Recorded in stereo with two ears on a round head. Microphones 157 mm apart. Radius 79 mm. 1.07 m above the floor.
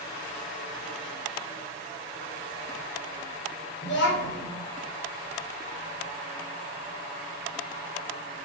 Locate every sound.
3.8 s a child speaking: 75° left (ahead or behind), 1.0 m